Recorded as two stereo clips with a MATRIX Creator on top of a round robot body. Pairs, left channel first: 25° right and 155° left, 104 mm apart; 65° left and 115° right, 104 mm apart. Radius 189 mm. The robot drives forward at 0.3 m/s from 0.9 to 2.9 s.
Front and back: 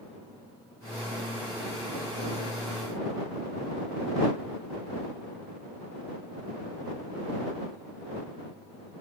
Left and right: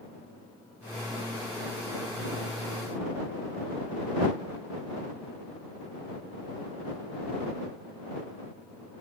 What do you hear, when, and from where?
Only background noise.